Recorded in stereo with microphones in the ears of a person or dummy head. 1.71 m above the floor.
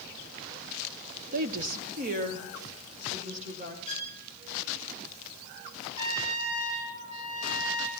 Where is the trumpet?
40° right (ahead or behind), 6.5 m.